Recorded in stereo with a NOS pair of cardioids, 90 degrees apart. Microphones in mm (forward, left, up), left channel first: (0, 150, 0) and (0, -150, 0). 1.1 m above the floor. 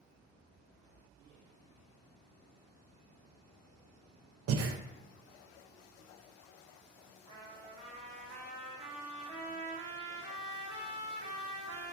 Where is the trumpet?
70° right, 1.4 m.